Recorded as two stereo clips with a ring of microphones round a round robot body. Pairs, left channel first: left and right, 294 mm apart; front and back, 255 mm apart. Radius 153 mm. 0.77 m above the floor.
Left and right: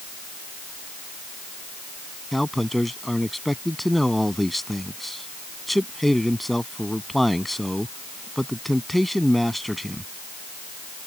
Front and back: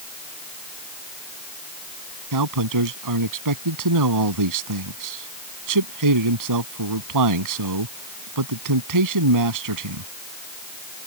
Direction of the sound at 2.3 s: Straight behind.